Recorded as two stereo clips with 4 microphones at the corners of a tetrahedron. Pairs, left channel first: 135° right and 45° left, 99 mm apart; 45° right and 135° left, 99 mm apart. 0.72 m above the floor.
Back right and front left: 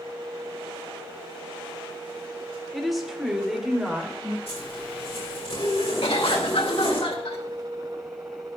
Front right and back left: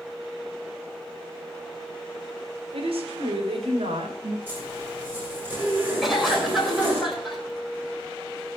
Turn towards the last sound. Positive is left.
turn(degrees=-135)